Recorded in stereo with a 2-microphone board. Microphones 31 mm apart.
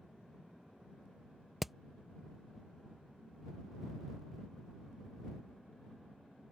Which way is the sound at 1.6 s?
5° right (ahead or behind).